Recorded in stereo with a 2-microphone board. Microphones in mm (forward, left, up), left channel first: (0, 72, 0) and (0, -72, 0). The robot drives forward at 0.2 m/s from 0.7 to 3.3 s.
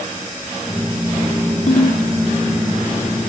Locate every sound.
1.7 s a ringtone: 80° left